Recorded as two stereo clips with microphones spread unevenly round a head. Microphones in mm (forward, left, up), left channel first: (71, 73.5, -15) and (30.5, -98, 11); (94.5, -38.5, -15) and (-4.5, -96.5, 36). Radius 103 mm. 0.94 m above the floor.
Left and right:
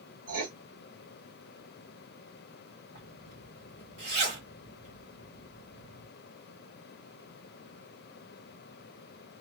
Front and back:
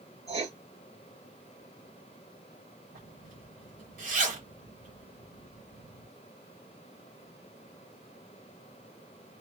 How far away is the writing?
About 1.5 m.